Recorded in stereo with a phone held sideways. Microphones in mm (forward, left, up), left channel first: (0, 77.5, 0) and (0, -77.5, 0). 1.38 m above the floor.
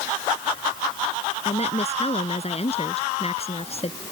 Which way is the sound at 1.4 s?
45° left (ahead or behind).